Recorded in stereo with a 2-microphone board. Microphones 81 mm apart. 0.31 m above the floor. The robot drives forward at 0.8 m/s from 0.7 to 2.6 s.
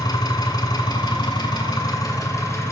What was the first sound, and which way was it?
An engine running, 60° left (ahead or behind).